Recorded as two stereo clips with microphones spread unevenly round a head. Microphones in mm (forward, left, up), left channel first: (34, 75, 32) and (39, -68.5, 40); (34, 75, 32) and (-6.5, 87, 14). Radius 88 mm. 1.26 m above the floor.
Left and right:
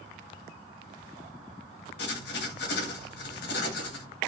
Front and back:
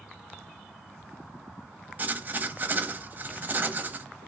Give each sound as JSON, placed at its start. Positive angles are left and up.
{"t": 2.0, "sound": "writing", "azimuth_deg": 110, "distance_m": 0.8}